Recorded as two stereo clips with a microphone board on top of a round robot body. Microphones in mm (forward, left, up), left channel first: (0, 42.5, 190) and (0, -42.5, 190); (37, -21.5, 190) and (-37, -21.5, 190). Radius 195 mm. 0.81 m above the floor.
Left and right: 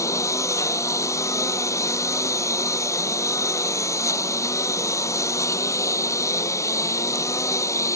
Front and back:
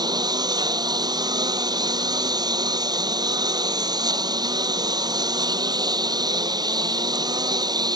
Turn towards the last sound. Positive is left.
turn(degrees=145)